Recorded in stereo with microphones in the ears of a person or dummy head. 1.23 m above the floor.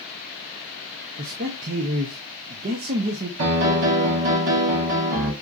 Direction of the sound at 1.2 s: 40° right (ahead or behind).